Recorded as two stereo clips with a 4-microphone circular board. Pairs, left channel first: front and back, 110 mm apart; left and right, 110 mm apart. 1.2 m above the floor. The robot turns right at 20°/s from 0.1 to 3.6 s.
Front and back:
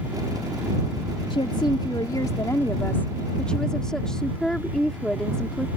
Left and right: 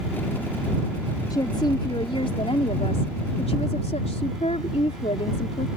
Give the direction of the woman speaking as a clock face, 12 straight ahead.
11 o'clock.